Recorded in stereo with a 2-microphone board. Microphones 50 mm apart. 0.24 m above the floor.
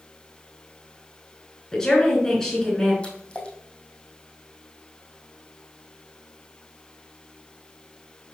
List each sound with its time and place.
1.7 s a woman speaking: 10° left (ahead or behind), 3.5 m
3.0 s a splash: 20° left (ahead or behind), 2.5 m